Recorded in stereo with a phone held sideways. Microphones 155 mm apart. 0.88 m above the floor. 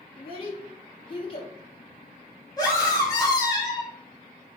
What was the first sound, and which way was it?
A child speaking, 35° left (ahead or behind).